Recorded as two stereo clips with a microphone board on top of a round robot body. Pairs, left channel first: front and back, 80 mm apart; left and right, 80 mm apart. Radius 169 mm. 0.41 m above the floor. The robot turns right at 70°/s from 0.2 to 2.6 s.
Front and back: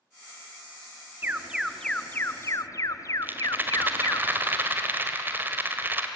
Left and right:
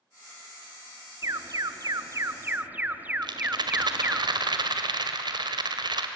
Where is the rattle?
115° right, 1.7 m.